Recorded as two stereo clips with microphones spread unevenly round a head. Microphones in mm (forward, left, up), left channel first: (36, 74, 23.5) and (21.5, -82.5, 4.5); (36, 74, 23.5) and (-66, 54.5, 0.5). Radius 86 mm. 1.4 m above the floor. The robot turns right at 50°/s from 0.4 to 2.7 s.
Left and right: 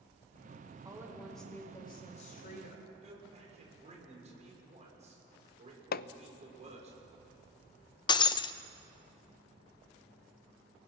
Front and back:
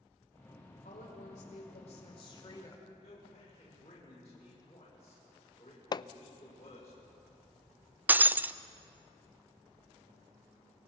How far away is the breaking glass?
About 0.5 m.